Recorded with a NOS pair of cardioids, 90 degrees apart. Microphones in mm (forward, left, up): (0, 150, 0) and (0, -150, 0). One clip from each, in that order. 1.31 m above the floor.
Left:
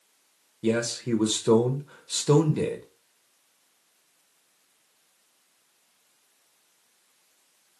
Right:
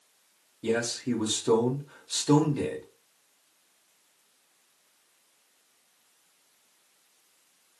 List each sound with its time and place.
0.6 s a man speaking: 15° left, 0.6 m